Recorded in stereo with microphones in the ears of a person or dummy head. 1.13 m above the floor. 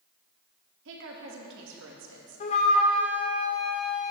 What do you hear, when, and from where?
0.8 s a woman speaking: 60° right (ahead or behind), 1.6 m
2.4 s a flute: 40° left (ahead or behind), 0.9 m